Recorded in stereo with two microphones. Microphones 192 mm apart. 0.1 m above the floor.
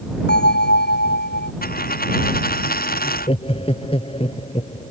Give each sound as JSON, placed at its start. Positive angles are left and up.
{"t": 0.3, "sound": "a bell", "side_deg": 60}
{"t": 1.6, "sound": "a dropped coin", "side_deg": 50}
{"t": 3.0, "sound": "laughter", "side_deg": 30}